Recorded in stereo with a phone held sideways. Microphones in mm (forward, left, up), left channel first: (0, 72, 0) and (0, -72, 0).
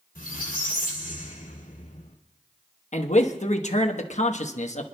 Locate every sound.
0.1 s a squeak: 75° left (ahead or behind), 2.5 m
2.9 s a man speaking: 55° left (ahead or behind), 1.1 m